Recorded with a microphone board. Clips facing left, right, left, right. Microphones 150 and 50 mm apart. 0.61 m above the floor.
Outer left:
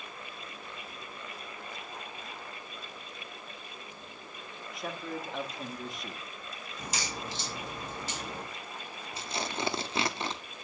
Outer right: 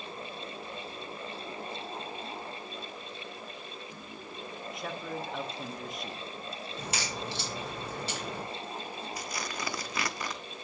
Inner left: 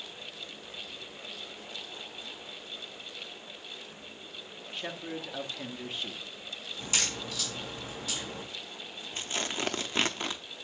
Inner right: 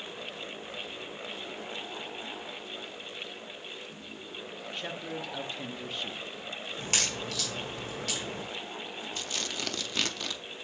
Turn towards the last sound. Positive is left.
turn(degrees=25)  # may be behind; listen again after turning